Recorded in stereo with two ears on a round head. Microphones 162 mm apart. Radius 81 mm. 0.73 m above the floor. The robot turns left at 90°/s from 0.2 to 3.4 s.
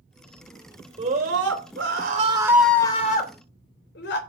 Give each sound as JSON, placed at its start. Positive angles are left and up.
{"t": 1.0, "sound": "a scream", "azimuth_deg": -30, "distance_m": 3.0}